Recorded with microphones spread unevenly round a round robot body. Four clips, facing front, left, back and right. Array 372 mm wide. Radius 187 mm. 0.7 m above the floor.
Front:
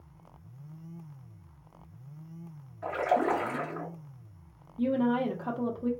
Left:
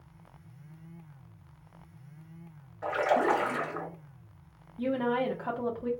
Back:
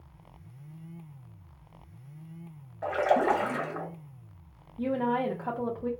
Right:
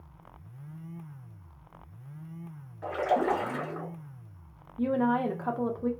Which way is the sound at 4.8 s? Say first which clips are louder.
Right 2 dB, front 1 dB; 85° right.